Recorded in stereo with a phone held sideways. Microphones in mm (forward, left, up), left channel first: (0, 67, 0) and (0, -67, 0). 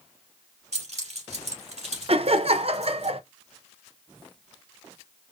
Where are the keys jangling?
60° right (ahead or behind), 2.5 m.